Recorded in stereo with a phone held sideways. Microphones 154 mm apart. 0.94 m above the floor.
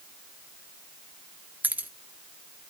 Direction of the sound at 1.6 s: 10° right (ahead or behind).